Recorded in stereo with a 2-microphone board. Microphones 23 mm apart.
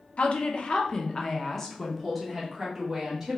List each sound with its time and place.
0.2 s a woman speaking: 55° left (ahead or behind), 0.8 m; by 3.4 s 10° right (ahead or behind), 1.6 m